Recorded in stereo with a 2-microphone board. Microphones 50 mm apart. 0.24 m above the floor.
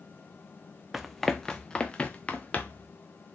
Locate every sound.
0.9 s running footsteps: 5° right (ahead or behind), 0.6 m; by 2.9 s 30° left (ahead or behind), 1.5 m